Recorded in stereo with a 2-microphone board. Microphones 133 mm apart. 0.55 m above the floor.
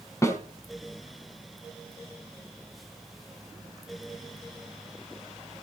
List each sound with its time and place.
0.2 s a snare drum: 20° left (ahead or behind), 4.5 m